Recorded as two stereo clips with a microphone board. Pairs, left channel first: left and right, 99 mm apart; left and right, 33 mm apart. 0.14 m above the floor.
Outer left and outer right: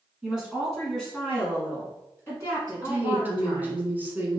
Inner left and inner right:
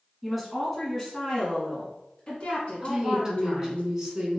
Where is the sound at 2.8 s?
20° right (ahead or behind), 1.0 m.